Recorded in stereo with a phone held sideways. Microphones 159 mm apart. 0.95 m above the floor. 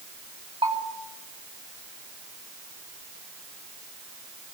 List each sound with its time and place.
0.6 s a bell: 30° right (ahead or behind), 4.5 m